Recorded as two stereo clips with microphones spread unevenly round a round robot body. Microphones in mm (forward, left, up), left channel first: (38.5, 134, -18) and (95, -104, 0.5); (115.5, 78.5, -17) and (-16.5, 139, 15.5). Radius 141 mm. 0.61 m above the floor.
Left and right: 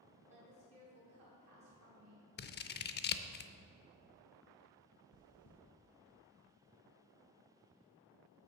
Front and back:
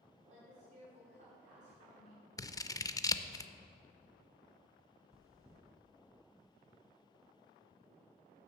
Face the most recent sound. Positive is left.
turn(degrees=70)